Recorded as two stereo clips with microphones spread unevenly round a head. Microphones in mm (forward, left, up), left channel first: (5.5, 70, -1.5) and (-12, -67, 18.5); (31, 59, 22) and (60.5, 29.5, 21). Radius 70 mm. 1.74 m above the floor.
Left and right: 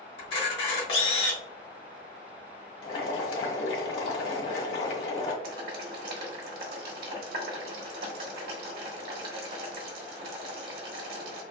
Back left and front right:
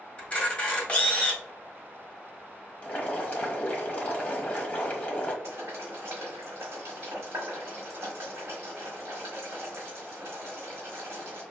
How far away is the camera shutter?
About 1.5 m.